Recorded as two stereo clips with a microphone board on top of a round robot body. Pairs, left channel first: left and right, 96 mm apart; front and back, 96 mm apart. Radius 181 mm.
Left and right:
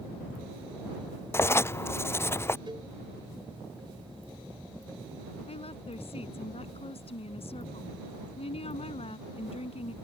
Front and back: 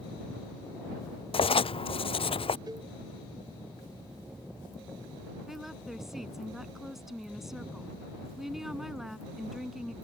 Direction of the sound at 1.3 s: 25° left.